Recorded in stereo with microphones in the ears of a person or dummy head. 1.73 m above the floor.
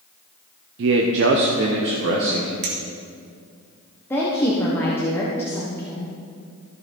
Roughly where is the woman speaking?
Centre.